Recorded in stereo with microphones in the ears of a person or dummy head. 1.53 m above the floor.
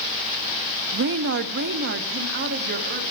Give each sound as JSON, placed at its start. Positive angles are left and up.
{"t": 0.9, "sound": "a woman speaking", "side_deg": -60, "distance_m": 0.5}